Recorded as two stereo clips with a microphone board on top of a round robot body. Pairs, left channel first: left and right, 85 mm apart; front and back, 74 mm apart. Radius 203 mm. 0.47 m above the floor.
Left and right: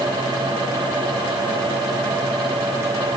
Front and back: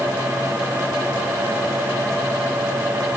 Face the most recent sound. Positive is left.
No sound to turn to.